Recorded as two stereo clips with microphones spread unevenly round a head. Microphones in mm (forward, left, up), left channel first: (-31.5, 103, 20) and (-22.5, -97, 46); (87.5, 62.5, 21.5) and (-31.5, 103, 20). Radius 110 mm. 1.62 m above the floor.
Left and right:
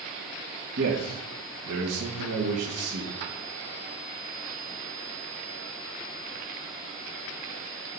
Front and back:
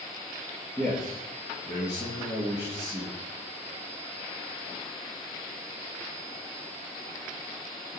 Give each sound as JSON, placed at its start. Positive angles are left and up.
{"t": 0.8, "sound": "a man speaking", "azimuth_deg": -95, "distance_m": 3.0}